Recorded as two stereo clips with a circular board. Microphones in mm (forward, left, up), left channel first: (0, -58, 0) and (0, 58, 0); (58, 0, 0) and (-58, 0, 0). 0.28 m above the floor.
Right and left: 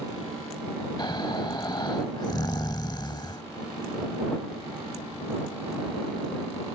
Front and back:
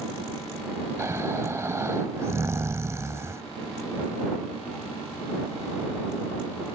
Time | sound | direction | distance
1.0 | snoring | 125° right | ?